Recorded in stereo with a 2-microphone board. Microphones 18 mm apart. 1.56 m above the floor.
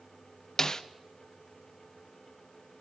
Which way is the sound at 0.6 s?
30° left (ahead or behind).